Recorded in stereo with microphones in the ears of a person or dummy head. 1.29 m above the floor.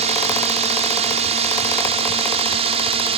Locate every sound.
0.0 s a drone: 35° right (ahead or behind); by 3.2 s 30° right (ahead or behind)